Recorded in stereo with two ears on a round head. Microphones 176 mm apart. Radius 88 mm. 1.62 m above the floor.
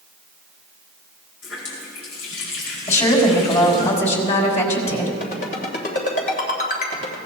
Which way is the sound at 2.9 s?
35° left (ahead or behind).